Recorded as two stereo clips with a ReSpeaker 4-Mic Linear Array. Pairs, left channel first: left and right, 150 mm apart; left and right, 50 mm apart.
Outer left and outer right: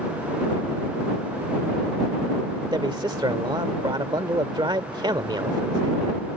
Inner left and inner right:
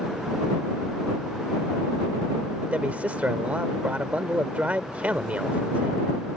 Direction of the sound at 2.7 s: 30° right (ahead or behind).